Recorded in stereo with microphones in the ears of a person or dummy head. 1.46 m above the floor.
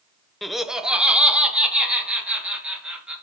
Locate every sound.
0.4 s laughter: centre (ahead or behind), 0.5 m; by 3.1 s 5° right (ahead or behind), 4 m